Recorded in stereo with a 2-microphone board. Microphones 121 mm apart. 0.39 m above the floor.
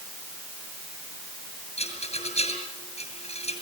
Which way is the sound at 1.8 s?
60° left (ahead or behind).